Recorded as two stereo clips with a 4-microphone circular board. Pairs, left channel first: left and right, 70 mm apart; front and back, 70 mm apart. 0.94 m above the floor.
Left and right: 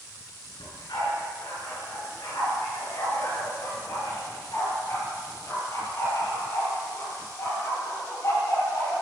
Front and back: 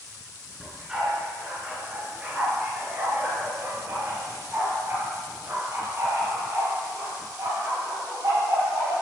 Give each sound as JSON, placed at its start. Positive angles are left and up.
{"t": 0.6, "sound": "a dog barking", "azimuth_deg": 100, "distance_m": 5.0}